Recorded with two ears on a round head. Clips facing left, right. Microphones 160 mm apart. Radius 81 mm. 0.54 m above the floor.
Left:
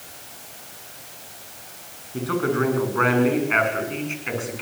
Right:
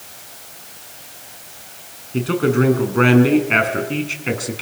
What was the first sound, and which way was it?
A man speaking, 30° right (ahead or behind).